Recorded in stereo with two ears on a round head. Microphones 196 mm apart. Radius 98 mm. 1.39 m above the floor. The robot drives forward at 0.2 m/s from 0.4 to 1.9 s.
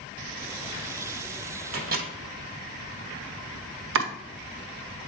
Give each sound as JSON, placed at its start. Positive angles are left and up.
{"t": 1.7, "sound": "a microwave", "side_deg": -45, "distance_m": 1.2}
{"t": 4.0, "sound": "chopping", "side_deg": -65, "distance_m": 0.8}